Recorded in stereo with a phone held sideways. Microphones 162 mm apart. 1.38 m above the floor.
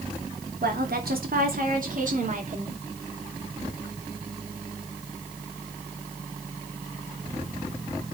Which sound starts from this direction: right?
A woman speaking, at 0.6 s.